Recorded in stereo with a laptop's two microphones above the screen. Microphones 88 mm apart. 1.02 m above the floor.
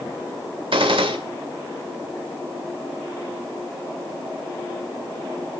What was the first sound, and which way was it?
A gunshot, 75° right (ahead or behind).